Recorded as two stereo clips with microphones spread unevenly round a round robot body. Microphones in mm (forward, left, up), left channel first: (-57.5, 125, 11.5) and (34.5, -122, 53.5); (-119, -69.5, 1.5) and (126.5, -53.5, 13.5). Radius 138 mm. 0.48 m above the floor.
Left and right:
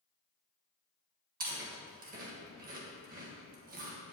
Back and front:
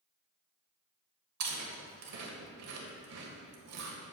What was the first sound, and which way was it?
Chewing, 10° right.